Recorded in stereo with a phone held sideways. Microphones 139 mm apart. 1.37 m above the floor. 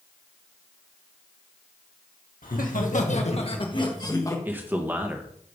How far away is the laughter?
About 1.2 m.